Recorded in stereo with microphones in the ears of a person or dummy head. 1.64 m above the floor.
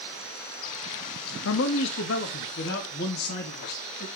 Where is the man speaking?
70° left (ahead or behind), 0.6 m; by 4.1 s 60° left (ahead or behind), 2 m.